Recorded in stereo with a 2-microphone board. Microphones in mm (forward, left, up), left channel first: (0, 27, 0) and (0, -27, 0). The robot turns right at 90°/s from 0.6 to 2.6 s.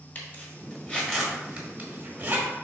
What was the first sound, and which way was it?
A zipper, 35° left (ahead or behind).